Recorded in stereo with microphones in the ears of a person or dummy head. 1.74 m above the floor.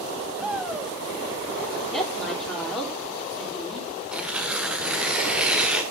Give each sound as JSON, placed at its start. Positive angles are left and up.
{"t": 0.4, "sound": "a shout", "side_deg": -5, "distance_m": 3.0}
{"t": 1.9, "sound": "a woman speaking", "side_deg": 0, "distance_m": 4.5}
{"t": 4.1, "sound": "tearing paper", "side_deg": -5, "distance_m": 0.8}